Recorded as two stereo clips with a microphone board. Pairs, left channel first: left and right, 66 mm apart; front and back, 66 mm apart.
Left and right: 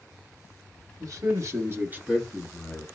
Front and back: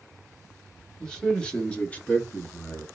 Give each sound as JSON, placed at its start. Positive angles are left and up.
{"t": 1.0, "sound": "a man speaking", "azimuth_deg": -80, "distance_m": 1.6}